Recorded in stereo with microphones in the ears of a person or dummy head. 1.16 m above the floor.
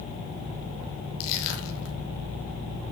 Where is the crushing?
70° left (ahead or behind), 2.5 m.